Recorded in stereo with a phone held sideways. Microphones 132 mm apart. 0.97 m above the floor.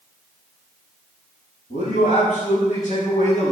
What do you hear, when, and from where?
1.7 s a man speaking: 80° left, 7 m